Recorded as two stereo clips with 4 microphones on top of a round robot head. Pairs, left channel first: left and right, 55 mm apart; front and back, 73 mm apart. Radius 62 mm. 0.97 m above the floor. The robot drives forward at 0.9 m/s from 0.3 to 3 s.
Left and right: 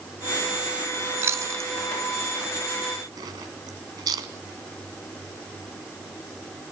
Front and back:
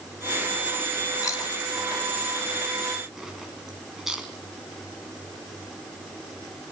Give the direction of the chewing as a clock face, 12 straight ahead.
2 o'clock.